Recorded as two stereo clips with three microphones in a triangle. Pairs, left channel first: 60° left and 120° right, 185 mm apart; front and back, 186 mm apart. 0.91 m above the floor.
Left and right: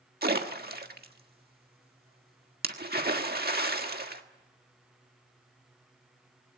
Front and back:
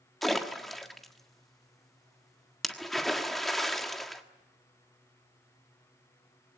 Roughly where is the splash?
Right.